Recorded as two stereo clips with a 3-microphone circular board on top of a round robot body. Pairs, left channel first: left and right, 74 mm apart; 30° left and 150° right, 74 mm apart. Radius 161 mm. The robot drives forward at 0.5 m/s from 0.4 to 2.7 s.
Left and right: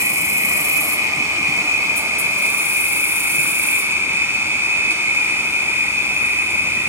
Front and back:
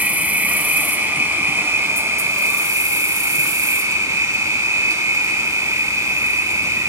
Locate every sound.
0.0 s an insect: 95° right, 2.5 m; by 6.9 s 130° right, 3 m